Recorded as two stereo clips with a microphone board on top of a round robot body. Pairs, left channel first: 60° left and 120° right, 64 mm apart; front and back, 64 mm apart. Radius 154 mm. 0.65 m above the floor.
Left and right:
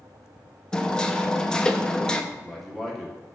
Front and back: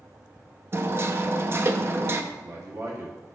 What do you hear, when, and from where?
0.7 s hammering: 135° left, 0.7 m
2.3 s a man speaking: 150° left, 1.8 m